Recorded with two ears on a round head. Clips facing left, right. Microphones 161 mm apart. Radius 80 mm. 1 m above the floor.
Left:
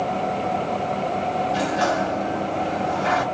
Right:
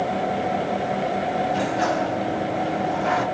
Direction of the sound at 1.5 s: 75° left (ahead or behind).